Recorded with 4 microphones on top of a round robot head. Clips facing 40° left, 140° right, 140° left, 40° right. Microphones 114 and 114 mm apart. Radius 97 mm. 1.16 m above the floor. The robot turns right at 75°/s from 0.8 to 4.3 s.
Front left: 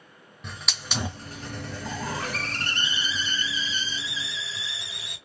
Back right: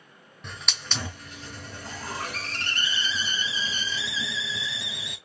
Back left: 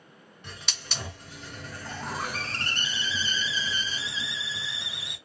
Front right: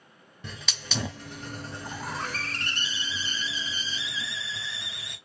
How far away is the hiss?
About 0.7 m.